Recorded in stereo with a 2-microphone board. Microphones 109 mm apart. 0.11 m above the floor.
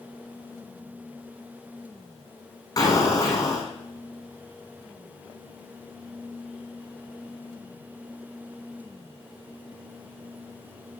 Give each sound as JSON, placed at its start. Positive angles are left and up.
{"t": 2.8, "sound": "an explosion", "side_deg": 35, "distance_m": 3.0}